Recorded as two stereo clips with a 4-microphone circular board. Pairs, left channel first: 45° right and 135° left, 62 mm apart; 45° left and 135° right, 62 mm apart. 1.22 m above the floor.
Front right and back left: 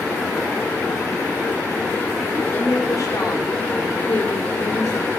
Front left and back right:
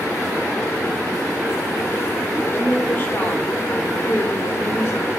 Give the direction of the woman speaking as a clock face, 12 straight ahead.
12 o'clock.